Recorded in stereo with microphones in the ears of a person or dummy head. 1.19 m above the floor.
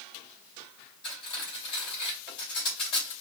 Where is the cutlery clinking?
25° left (ahead or behind), 3 m.